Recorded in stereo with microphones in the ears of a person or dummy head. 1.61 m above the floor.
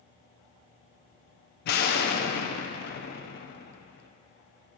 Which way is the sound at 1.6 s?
60° left (ahead or behind).